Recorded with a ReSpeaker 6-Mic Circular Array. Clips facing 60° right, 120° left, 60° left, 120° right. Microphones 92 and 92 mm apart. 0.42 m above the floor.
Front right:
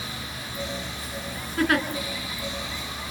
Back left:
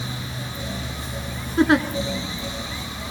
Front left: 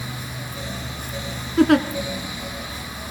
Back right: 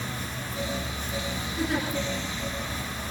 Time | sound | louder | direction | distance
1.6 | a giggle | back left 6 dB, front left 14 dB | 55° left | 1.9 m